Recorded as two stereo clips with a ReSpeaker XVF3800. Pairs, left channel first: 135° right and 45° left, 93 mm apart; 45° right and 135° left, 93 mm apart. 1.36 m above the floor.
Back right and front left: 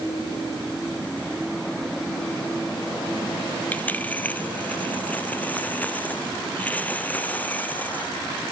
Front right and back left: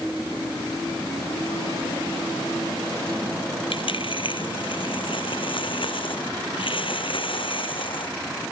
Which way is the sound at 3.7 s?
60° right.